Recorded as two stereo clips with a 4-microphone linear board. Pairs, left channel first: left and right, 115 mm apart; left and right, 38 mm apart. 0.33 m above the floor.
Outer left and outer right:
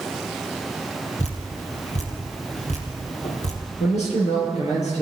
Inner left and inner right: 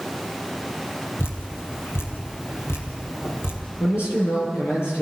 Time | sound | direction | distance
1.2 | dripping | 85° left | 3.5 m
3.8 | a man speaking | 75° left (ahead or behind) | 8 m